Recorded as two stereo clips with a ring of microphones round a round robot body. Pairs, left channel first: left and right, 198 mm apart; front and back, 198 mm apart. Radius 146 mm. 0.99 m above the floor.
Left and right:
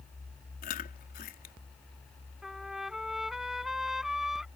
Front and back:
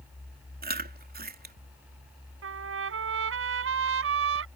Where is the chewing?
145° left.